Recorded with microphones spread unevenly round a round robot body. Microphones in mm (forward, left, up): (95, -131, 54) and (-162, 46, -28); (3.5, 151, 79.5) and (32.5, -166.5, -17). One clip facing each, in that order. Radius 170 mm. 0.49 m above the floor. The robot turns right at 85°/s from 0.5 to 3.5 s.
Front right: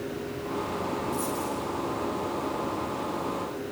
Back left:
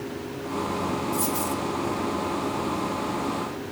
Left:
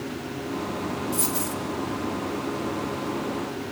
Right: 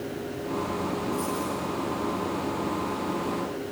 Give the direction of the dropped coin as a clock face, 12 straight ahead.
10 o'clock.